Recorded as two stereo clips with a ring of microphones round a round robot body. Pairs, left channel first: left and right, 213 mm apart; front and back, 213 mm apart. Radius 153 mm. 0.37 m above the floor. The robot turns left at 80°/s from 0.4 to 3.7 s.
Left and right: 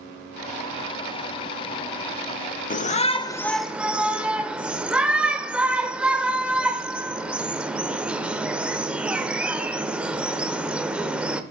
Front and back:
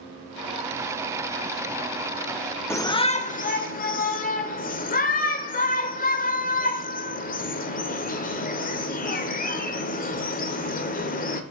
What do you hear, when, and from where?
2.7 s a shout: 70° left, 1.1 m; by 11.4 s 10° right, 1.1 m